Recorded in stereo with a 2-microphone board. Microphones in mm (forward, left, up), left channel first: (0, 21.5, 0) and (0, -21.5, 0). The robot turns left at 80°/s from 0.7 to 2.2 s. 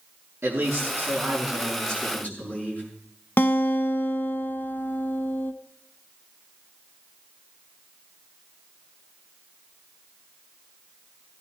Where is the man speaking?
95° right, 6.5 m; by 2.8 s 145° left, 6.5 m.